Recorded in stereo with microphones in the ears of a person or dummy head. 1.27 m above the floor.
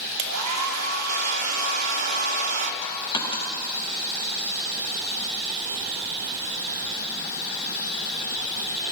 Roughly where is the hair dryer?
Right.